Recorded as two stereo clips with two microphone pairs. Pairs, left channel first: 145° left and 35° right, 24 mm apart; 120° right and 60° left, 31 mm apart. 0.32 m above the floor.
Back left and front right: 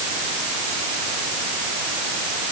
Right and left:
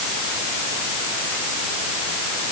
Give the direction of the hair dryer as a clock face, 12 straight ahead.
I don't hear a hair dryer.